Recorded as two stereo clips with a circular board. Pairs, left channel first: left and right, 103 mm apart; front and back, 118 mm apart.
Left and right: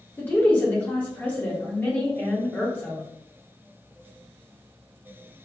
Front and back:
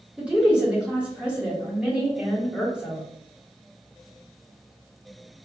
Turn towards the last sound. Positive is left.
turn(degrees=120)